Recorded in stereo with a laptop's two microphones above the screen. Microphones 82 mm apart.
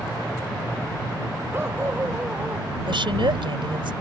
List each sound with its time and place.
1.5 s a dog barking: 25° right (ahead or behind)
2.9 s a woman speaking: 85° right